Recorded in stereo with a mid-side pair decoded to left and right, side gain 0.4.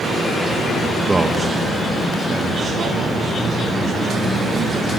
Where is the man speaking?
10° right, 1.1 m; by 4.9 s 60° right, 5.5 m.